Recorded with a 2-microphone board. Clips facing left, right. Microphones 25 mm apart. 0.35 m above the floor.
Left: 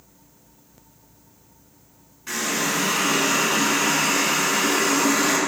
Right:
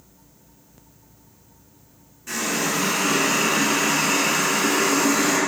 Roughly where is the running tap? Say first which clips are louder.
Even; left.